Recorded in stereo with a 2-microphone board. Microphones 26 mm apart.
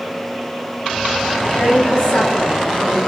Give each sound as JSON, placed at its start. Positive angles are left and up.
{"t": 1.6, "sound": "a woman speaking", "side_deg": 40, "distance_m": 3.0}